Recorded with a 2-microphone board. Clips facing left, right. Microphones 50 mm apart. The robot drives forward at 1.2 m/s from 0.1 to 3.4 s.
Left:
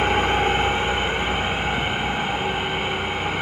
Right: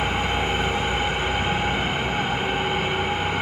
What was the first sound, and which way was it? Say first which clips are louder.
An engine running: left 4 dB; 60° left (ahead or behind).